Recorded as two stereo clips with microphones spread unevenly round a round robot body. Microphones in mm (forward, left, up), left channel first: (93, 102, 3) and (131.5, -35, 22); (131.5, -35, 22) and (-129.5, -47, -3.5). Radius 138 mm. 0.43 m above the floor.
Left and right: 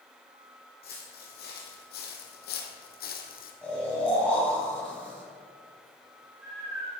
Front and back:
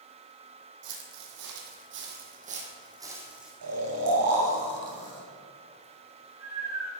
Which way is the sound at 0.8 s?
155° left.